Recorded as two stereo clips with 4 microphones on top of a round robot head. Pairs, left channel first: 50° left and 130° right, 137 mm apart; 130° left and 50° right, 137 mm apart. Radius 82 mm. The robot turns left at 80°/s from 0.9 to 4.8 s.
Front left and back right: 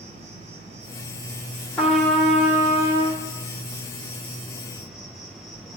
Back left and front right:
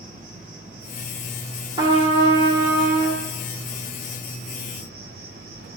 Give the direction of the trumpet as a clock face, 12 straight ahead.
1 o'clock.